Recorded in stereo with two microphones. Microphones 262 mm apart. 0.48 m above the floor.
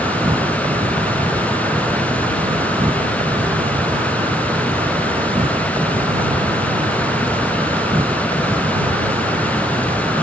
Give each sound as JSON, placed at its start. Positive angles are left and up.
{"t": 0.0, "sound": "an insect", "side_deg": -20}